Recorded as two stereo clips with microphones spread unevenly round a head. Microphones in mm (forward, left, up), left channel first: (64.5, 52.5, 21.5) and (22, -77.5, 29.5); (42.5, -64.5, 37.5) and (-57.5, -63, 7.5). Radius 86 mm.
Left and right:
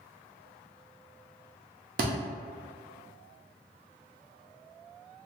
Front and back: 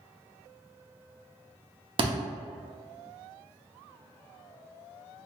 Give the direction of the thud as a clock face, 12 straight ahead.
5 o'clock.